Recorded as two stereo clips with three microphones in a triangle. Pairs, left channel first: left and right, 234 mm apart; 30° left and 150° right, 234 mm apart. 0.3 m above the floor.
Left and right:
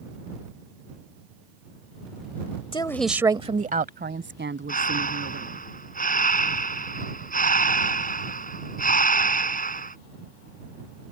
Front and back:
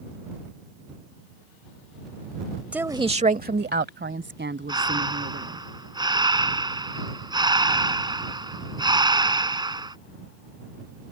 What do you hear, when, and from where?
2.7 s a woman speaking: 130° left; by 5.6 s 115° right
4.7 s breathing: 140° left